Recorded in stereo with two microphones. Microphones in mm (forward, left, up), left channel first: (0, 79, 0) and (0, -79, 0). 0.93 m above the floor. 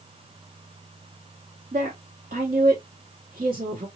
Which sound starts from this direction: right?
A woman speaking, at 1.7 s.